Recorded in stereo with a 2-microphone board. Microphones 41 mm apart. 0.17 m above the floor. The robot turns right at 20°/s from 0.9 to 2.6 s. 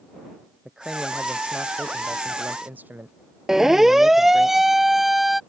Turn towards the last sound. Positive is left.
turn(degrees=-5)  # may be behind; listen again after turning